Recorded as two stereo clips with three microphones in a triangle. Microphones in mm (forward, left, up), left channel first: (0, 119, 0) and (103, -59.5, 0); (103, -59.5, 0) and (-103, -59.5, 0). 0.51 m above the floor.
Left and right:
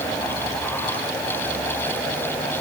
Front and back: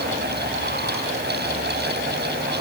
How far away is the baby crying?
I don't hear a baby crying.